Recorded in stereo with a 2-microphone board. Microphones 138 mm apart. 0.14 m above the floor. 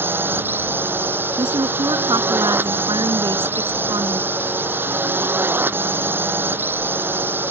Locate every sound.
0.0 s a drone: 15° right (ahead or behind)
1.4 s a woman speaking: 30° right (ahead or behind)